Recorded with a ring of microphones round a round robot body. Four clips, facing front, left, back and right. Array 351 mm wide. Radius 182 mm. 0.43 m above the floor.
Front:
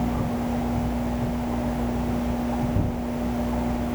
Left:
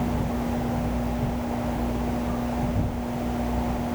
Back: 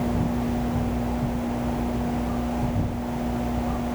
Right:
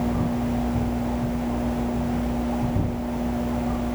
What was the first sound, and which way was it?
Only background noise.